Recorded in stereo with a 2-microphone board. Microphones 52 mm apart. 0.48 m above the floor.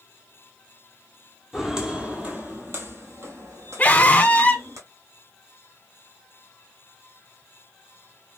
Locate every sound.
1.5 s footsteps: 5° right (ahead or behind), 0.9 m; by 4.8 s 75° right (ahead or behind), 1.7 m
3.8 s a scream: 30° left (ahead or behind), 0.9 m